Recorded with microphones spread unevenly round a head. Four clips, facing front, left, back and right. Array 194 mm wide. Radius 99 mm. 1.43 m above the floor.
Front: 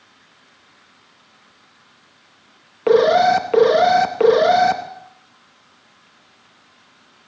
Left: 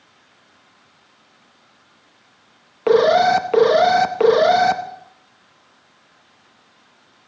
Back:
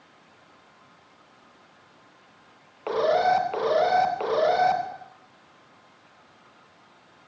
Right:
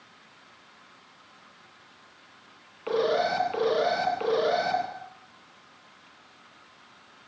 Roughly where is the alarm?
Ahead left.